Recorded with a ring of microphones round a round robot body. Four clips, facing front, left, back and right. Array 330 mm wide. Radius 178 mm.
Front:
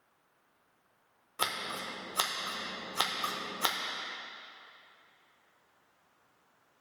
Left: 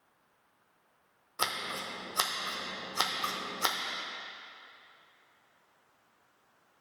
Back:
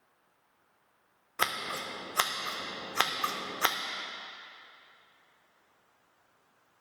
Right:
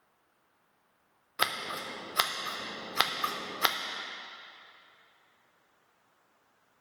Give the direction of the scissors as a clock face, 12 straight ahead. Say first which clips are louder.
Right 2 dB, back 3 dB; 5 o'clock.